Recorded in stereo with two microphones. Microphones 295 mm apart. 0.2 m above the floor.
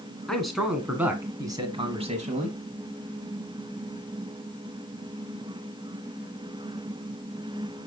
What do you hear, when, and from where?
0.3 s a man speaking: centre (ahead or behind), 2 m; by 2.6 s 30° right (ahead or behind), 1.4 m